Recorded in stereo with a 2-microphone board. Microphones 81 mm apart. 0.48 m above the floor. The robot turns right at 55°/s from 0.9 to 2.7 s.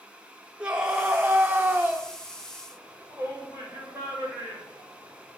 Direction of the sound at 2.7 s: 40° right (ahead or behind).